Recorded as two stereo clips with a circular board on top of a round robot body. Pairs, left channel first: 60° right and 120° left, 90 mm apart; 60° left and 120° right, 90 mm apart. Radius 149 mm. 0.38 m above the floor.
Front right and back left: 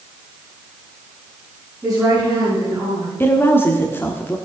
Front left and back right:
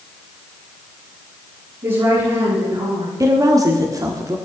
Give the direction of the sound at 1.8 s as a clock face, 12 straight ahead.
5 o'clock.